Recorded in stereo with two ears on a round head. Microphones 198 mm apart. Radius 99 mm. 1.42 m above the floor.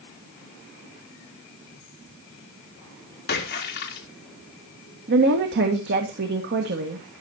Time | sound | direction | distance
3.3 | a splash | 45° left (ahead or behind) | 2.5 m
5.1 | a woman speaking | 55° right (ahead or behind) | 1.8 m